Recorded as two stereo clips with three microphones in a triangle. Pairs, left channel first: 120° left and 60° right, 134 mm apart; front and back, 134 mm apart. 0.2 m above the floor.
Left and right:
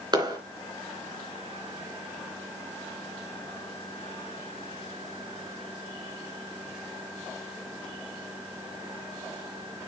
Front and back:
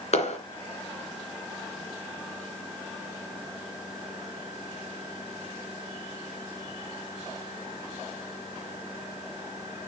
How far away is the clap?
About 2.5 m.